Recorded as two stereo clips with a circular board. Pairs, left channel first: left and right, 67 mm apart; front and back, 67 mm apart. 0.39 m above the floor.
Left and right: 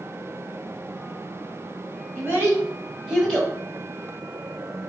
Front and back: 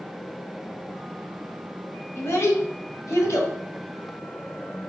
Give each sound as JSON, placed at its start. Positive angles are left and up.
{"t": 2.1, "sound": "a child speaking", "azimuth_deg": -45, "distance_m": 1.4}